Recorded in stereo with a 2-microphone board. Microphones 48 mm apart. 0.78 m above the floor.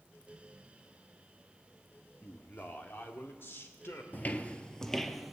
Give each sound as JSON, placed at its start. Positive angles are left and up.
{"t": 2.2, "sound": "a man speaking", "side_deg": 40, "distance_m": 1.4}
{"t": 4.1, "sound": "footsteps", "side_deg": 35, "distance_m": 0.9}